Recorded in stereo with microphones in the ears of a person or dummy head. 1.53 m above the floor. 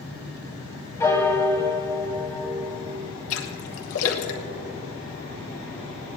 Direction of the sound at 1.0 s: 10° left (ahead or behind).